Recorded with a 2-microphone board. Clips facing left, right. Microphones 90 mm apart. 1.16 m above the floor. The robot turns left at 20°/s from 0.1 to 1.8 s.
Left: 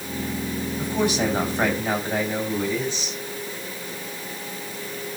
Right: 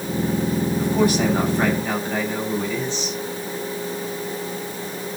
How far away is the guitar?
I don't hear a guitar.